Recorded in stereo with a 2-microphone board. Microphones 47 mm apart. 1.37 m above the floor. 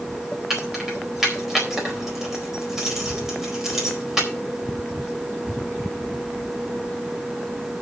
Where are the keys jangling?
10° right (ahead or behind), 4.5 m.